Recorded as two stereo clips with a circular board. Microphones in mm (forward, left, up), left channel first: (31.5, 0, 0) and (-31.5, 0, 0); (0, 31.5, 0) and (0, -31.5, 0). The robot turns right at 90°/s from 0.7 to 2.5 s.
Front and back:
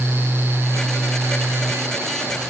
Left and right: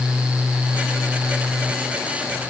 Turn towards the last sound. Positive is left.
No sound to turn to.